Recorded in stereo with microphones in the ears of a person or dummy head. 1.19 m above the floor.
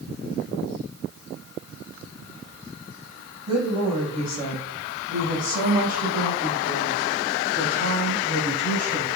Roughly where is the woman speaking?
Centre.